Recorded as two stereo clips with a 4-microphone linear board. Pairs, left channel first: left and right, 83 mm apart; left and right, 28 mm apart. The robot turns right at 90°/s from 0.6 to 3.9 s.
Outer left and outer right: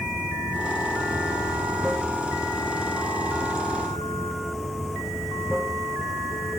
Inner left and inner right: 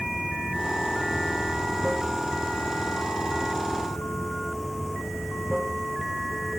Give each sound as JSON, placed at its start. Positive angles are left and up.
{"t": 0.0, "sound": "running water", "azimuth_deg": -120}